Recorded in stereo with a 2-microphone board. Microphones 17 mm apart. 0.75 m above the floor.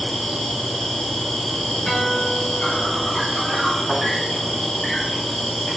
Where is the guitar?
40° left (ahead or behind), 4 m.